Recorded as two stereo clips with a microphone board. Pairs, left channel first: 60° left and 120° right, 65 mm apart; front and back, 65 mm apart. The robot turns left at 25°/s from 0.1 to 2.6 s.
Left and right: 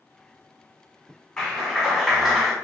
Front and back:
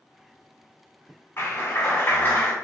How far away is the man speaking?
No man speaking in this recording.